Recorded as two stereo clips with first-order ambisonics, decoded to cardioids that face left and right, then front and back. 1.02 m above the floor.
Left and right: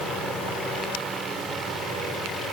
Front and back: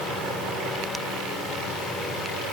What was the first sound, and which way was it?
Only background noise.